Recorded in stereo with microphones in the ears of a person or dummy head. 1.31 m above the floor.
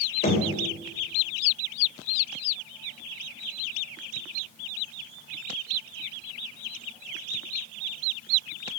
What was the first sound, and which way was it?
Knocking, 40° left (ahead or behind).